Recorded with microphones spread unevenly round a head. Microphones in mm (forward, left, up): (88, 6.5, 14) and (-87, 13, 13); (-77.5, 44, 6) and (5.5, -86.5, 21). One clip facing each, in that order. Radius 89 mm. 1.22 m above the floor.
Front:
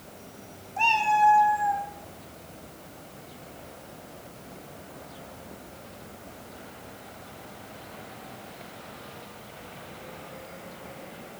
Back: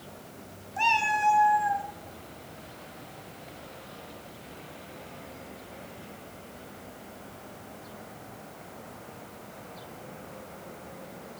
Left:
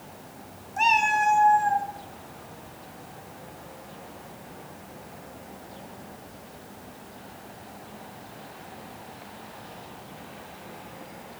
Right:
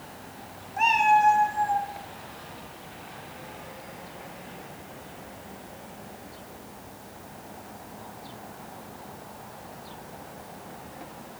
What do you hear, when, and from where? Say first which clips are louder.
0.8 s a cat meowing: front 5 dB, right 3 dB; 115° left, 0.7 m; by 1.9 s 125° left, 1.4 m